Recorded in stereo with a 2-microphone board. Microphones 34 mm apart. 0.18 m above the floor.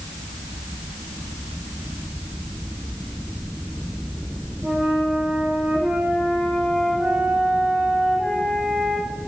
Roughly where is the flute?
Right.